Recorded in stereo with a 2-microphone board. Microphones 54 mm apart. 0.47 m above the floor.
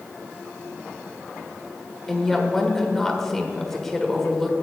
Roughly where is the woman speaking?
Centre.